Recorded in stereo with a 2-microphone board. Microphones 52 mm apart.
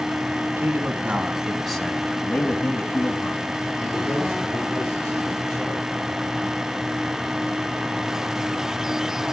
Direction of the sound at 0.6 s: 45° right (ahead or behind).